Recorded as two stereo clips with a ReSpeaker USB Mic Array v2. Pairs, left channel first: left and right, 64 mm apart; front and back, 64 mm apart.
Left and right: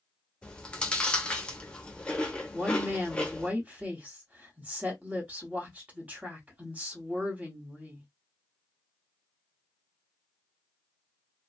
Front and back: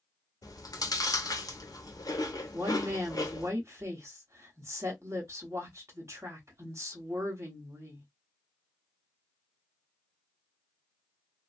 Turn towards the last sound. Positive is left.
turn(degrees=-150)